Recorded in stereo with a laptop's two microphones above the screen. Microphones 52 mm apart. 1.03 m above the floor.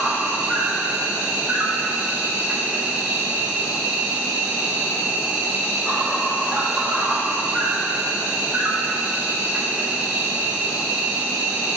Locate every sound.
0.0 s an insect: 25° right (ahead or behind), 2.5 m